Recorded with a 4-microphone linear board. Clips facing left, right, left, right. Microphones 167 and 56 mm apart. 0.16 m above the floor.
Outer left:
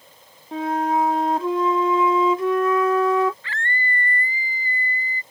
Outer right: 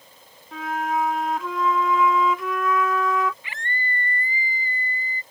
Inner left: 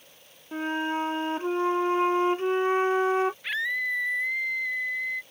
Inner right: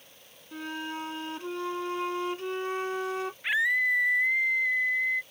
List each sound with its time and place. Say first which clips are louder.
0.5 s a flute: outer left 4 dB, inner left 8 dB; 35° left (ahead or behind)
3.4 s a scream: outer left 3 dB, inner right 3 dB; 15° right (ahead or behind)